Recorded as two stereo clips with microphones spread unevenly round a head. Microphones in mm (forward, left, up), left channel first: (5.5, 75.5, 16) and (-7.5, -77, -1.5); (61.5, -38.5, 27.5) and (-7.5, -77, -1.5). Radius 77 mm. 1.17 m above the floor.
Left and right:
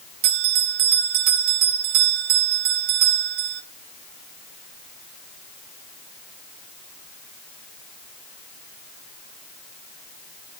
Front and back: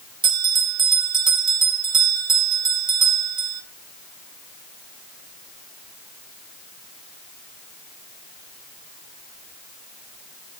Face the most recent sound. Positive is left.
turn(degrees=-125)